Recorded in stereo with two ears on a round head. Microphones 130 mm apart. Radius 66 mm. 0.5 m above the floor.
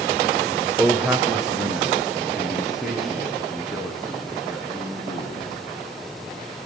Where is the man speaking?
10° right (ahead or behind), 1.4 m; by 5.5 s centre (ahead or behind), 7 m.